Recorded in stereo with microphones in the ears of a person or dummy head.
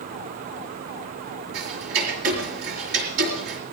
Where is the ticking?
65° right (ahead or behind), 5 m.